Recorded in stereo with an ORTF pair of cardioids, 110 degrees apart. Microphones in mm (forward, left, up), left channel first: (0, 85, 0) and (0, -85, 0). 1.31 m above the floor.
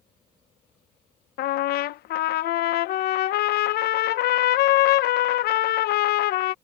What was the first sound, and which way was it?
A trumpet, 70° left.